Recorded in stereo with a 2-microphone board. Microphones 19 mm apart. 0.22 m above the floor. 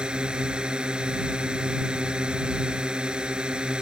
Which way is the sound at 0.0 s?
55° right (ahead or behind).